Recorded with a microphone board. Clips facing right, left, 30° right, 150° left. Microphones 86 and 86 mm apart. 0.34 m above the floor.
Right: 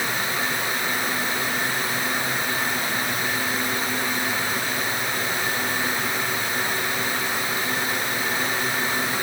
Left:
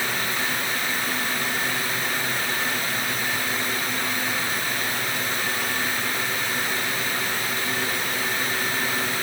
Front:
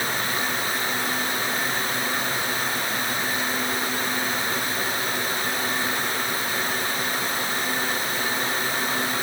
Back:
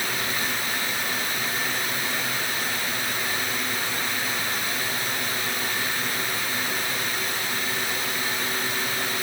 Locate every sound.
Only background noise.